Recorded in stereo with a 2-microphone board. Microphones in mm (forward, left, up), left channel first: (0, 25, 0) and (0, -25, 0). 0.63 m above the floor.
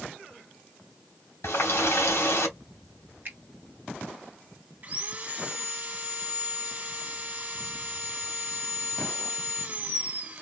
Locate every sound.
1.4 s a running tap: 70° left (ahead or behind), 2 m
3.2 s a finger snap: 40° right (ahead or behind), 1.5 m
4.8 s sawing: 35° right (ahead or behind), 1.2 m